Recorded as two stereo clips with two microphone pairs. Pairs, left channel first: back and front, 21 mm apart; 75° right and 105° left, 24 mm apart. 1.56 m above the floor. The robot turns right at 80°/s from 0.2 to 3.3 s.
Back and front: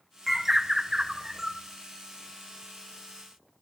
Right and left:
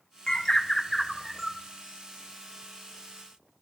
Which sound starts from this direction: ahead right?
A bird, at 0.3 s.